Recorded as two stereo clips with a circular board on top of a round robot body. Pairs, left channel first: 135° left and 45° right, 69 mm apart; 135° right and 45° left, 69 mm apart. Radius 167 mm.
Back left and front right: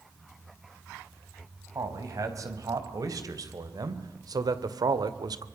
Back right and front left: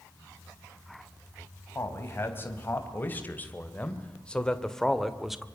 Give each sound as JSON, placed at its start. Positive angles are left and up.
{"t": 1.8, "sound": "a man speaking", "azimuth_deg": -80, "distance_m": 4.5}